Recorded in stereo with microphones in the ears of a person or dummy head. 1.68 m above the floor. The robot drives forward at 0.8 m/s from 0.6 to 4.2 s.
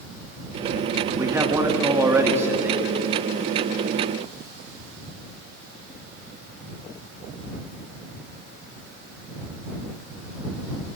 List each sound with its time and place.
1.2 s a man speaking: 20° right (ahead or behind), 3 m; by 3.0 s 10° right (ahead or behind), 4 m